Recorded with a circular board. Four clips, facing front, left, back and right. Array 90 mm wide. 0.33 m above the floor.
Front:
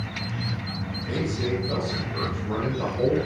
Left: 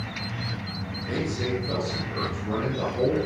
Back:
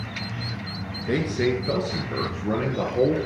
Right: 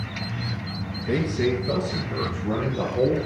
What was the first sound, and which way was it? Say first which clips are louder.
A man speaking: right 5 dB, back 4 dB; 150° right.